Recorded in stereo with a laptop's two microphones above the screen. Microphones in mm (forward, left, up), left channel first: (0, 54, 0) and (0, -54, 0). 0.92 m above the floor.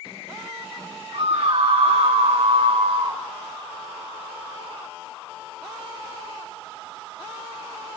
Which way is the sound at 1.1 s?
65° right (ahead or behind).